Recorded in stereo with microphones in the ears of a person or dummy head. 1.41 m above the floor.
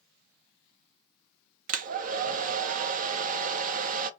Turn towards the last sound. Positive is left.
turn(degrees=-50)  # may be behind; listen again after turning